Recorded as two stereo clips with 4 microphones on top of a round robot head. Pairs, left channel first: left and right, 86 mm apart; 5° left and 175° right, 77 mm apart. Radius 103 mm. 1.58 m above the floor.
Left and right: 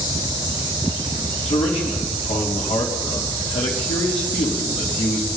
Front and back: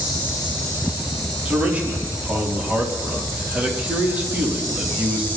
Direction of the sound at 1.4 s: 110° left.